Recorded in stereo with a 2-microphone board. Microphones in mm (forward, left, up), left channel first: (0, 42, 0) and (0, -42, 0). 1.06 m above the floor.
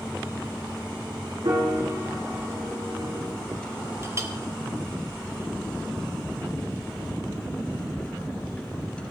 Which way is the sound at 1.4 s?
55° right (ahead or behind).